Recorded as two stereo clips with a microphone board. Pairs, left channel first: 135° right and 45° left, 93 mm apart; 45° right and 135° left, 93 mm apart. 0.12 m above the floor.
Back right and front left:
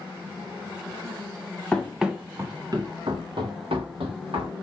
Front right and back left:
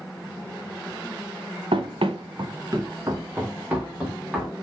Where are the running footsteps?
145° left, 0.7 m; by 4.5 s 50° left, 1.7 m.